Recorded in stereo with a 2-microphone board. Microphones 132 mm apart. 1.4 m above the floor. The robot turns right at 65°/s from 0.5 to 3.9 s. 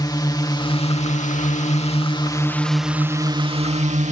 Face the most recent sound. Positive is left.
turn(degrees=-105)